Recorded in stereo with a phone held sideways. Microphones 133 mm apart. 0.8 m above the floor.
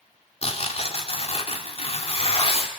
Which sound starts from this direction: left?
Tearing paper, at 0.4 s.